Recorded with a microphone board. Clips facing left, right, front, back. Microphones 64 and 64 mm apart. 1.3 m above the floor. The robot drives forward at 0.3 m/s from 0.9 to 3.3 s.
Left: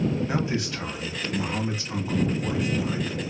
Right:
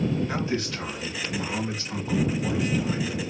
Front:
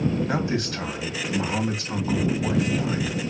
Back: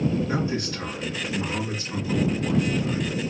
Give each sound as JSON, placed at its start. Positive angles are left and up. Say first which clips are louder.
{"t": 0.3, "sound": "a man speaking", "louder": "left 1 dB, front 1 dB", "azimuth_deg": 10, "distance_m": 1.9}